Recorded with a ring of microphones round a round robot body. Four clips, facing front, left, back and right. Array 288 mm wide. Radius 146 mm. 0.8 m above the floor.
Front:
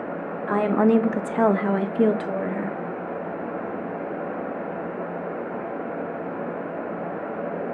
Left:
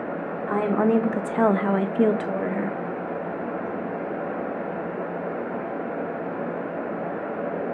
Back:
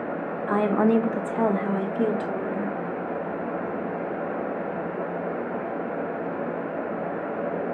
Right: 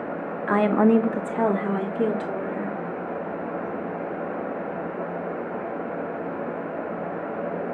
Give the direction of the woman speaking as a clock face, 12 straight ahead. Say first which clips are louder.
Right 3 dB, front 2 dB; 3 o'clock.